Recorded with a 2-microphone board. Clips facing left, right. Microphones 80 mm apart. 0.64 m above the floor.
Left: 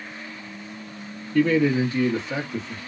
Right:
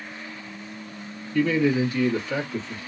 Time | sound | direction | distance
1.3 | a man speaking | 45° left (ahead or behind) | 1.2 m